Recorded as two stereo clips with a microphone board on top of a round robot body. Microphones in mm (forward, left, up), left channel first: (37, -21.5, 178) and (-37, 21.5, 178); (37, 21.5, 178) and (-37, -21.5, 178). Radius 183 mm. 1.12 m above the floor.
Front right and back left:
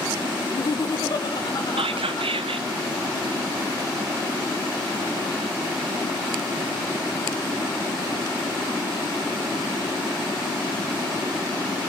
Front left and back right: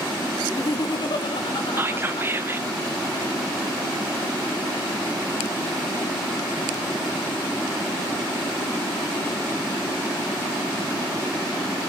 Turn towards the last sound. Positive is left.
turn(degrees=145)